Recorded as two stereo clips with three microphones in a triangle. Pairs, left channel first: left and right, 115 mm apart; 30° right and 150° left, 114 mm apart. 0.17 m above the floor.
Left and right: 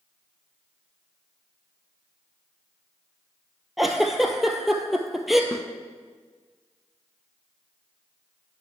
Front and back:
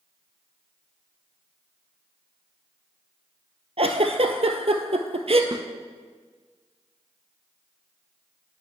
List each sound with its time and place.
3.8 s a giggle: straight behind, 0.9 m
5.5 s a snare drum: 130° left, 0.8 m